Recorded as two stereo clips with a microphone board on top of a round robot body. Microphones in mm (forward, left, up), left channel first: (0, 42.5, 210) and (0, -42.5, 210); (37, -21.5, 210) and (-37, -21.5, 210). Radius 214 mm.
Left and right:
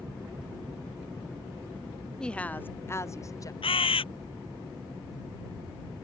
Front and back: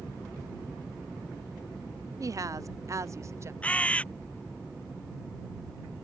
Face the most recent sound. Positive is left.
turn(degrees=75)